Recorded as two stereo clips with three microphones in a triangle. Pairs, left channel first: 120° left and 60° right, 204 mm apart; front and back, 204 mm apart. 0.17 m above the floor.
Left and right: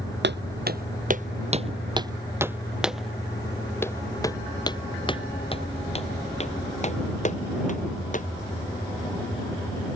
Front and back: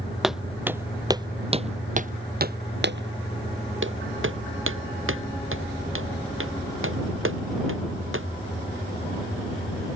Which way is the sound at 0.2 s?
90° right.